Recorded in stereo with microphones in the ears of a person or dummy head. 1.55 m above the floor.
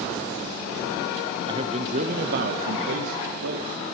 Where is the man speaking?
25° right (ahead or behind), 1.0 m; by 3.8 s 70° right (ahead or behind), 1.7 m.